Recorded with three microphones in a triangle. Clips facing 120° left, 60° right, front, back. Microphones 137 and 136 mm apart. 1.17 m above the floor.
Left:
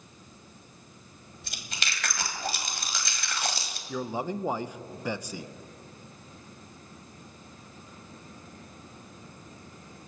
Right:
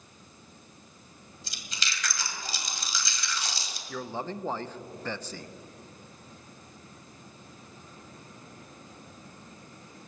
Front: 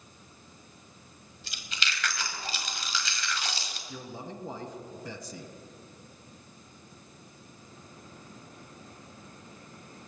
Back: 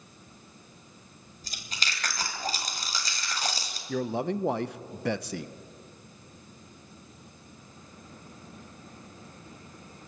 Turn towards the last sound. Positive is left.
turn(degrees=-160)